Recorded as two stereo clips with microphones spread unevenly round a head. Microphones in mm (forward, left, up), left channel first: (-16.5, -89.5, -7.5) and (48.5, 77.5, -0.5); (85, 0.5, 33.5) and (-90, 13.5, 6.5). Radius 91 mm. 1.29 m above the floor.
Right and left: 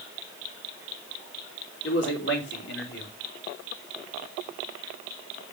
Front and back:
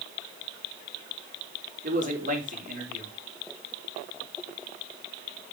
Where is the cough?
No cough in this recording.